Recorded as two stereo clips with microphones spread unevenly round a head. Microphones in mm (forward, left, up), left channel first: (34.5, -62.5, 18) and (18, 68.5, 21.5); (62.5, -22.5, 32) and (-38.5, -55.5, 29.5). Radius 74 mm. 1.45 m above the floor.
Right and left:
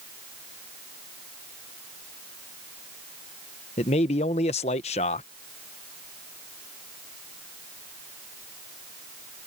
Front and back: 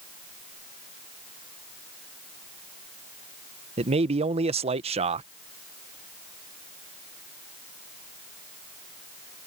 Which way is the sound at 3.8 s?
135° right.